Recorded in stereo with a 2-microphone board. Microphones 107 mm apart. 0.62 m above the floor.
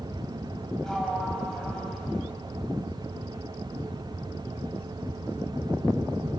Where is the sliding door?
5° left (ahead or behind), 4 m.